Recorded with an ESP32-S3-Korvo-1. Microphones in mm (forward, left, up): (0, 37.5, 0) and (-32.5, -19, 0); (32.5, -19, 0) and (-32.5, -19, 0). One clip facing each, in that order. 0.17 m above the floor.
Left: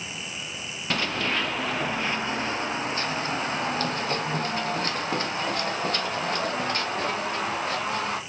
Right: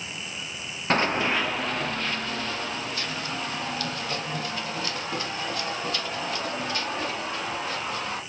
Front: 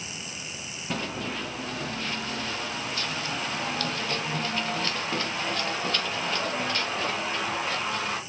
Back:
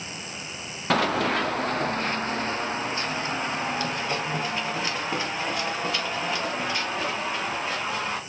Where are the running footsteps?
175° right, 0.6 m; by 8.2 s 100° left, 4 m.